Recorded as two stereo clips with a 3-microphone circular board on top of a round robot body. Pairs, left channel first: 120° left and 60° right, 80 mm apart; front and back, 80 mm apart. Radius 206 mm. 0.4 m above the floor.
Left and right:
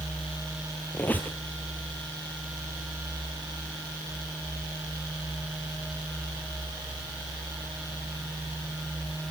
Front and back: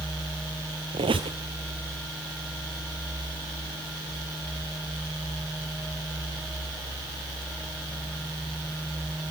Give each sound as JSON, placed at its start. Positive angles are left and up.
{"t": 0.9, "sound": "a squeak", "azimuth_deg": -170, "distance_m": 0.6}